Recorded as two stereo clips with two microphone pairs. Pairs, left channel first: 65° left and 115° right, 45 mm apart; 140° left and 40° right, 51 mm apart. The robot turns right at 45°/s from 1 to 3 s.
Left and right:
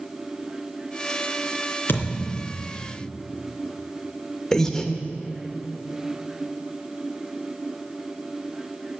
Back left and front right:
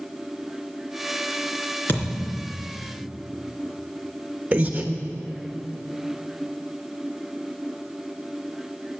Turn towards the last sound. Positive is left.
turn(degrees=5)